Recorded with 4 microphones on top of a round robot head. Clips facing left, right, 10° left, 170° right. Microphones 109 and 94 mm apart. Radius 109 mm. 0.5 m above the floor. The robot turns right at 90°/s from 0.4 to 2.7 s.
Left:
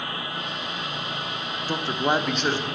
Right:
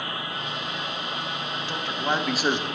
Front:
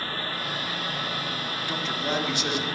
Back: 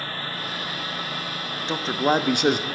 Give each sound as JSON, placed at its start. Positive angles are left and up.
{"t": 1.7, "sound": "a man speaking", "azimuth_deg": 125, "distance_m": 1.1}